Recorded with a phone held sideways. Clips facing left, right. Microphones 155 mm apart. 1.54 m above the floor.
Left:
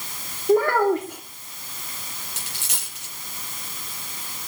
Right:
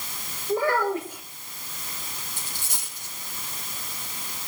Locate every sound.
0.5 s a child speaking: 70° left (ahead or behind), 3.5 m
2.4 s a dropped coin: 80° left, 9.5 m